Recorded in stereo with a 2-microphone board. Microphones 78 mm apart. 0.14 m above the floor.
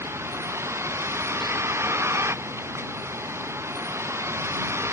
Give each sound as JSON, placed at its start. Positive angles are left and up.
{"t": 0.0, "sound": "a vehicle", "side_deg": -35}